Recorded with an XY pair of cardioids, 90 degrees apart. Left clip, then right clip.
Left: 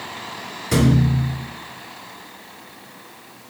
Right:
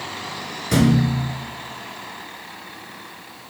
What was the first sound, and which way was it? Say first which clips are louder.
A thud: even; straight ahead.